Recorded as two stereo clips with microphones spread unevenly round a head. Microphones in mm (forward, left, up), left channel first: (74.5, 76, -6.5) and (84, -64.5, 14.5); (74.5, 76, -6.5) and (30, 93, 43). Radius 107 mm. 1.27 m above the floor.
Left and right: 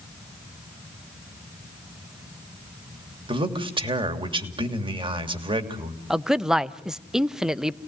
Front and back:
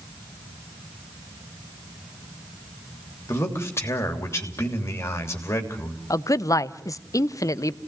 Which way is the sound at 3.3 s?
30° right.